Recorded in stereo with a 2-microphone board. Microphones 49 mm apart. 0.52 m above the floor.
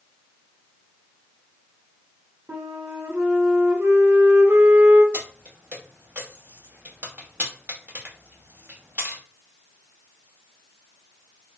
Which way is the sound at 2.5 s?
45° right (ahead or behind).